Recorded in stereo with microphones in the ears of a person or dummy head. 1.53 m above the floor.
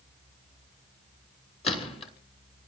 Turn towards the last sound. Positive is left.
turn(degrees=30)  # may be behind; listen again after turning